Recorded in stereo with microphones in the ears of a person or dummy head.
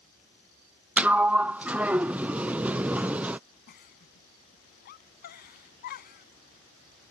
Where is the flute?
No flute in this recording.